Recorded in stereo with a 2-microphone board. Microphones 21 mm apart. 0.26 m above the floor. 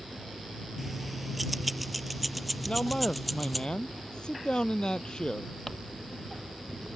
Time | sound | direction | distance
0.8 | keys jangling | 5° right (ahead or behind) | ?
2.7 | a man speaking | 45° left (ahead or behind) | ?
5.7 | crumpling | 10° left (ahead or behind) | ?